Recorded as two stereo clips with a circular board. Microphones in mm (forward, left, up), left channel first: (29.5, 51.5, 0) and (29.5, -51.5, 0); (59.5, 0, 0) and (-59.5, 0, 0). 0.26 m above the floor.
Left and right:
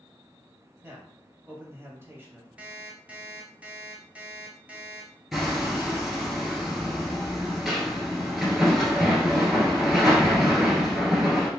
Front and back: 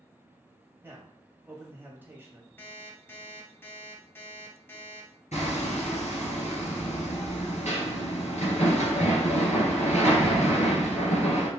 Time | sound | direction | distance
0.8 | a man speaking | 125° right | 1.0 m
2.6 | an alarm clock | 35° right | 0.8 m
5.3 | hammering | 10° right | 1.7 m